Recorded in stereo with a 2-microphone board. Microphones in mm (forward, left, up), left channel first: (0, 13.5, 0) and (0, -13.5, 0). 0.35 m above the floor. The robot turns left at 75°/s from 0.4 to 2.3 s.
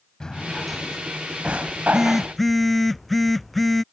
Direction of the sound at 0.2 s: 30° left (ahead or behind).